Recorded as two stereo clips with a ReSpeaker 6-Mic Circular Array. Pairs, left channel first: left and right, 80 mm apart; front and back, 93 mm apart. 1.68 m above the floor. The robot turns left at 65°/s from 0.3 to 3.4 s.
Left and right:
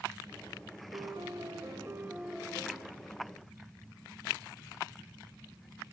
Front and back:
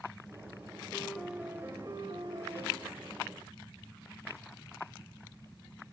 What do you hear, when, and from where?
0.9 s a piano: 80° right, 2.5 m; by 2.8 s 160° left, 2.5 m